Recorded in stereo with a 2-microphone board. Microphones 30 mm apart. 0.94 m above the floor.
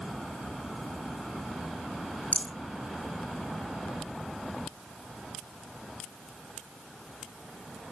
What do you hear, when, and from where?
2.3 s a rattle: 45° left (ahead or behind), 0.8 m